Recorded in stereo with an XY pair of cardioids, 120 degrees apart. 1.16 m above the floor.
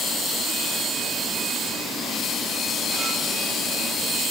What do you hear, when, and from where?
Only background noise.